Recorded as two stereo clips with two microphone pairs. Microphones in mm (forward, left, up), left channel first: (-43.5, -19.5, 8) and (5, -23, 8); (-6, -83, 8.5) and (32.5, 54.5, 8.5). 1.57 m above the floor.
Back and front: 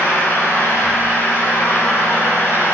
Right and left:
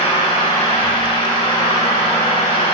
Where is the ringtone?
I don't hear a ringtone.